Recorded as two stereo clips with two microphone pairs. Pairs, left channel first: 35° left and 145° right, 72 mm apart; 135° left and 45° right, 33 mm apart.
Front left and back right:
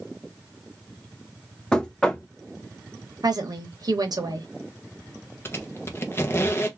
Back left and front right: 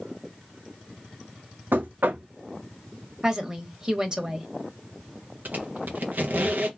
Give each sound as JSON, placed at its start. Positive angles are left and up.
{"t": 1.7, "sound": "knocking", "azimuth_deg": -45, "distance_m": 0.7}
{"t": 3.2, "sound": "a woman speaking", "azimuth_deg": -120, "distance_m": 1.2}
{"t": 5.5, "sound": "a squeak", "azimuth_deg": -25, "distance_m": 0.7}